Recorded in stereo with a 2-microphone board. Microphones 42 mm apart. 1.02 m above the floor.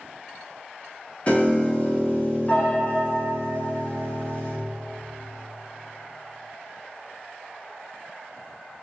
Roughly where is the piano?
Left.